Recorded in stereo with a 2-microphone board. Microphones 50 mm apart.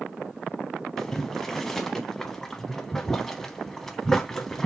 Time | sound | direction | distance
1.0 | boiling | 10° left (ahead or behind) | 0.8 m